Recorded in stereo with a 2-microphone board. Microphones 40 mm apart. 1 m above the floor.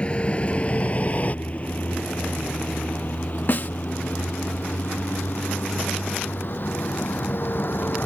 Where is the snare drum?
50° left (ahead or behind).